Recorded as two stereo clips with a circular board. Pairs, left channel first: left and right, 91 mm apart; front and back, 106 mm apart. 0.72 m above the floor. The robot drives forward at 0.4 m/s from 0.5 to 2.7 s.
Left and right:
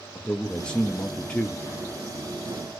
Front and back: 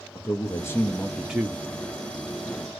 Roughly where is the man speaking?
Ahead.